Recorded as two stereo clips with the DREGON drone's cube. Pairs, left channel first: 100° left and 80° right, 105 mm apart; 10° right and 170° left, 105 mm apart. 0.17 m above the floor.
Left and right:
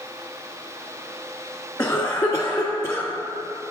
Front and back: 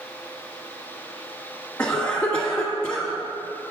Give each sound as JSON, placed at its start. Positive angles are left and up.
{"t": 1.8, "sound": "a cough", "azimuth_deg": 50, "distance_m": 1.4}